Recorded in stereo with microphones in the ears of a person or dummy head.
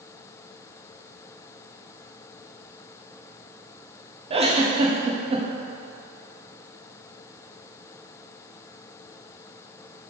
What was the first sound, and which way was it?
A giggle, 30° right (ahead or behind).